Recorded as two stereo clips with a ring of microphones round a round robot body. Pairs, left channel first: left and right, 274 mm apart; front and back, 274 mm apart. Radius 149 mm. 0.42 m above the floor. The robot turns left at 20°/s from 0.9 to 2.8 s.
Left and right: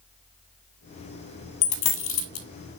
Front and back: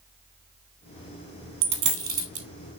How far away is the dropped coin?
About 1.2 m.